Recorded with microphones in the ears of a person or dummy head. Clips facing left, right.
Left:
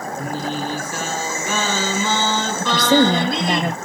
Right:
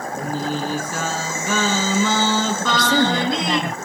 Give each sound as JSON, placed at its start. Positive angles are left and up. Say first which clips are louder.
{"t": 0.1, "sound": "singing", "louder": "right 2 dB", "side_deg": -70, "distance_m": 6.0}
{"t": 2.6, "sound": "a woman speaking", "louder": "left 7 dB", "side_deg": 25, "distance_m": 1.6}